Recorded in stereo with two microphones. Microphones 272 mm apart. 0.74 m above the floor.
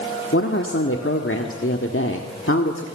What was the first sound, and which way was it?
A woman speaking, 50° left (ahead or behind).